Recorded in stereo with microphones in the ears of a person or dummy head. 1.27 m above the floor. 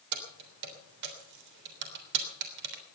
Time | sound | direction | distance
0.1 | keys jangling | 60° right (ahead or behind) | 3 m